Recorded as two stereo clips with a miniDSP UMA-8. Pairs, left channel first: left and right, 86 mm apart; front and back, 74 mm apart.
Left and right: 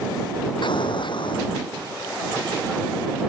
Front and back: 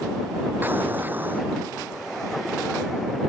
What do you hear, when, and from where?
0.6 s an explosion: 115° left